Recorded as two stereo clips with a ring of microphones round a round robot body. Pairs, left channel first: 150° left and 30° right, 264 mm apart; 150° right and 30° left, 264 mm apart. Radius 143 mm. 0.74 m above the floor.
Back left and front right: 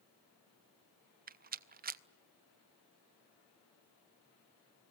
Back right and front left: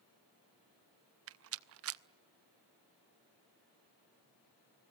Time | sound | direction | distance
1.3 | a rattle | 20° left | 0.6 m